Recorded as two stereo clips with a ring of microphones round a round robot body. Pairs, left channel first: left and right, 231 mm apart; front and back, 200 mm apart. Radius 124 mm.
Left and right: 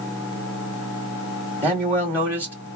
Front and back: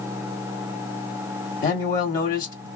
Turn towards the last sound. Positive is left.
turn(degrees=-20)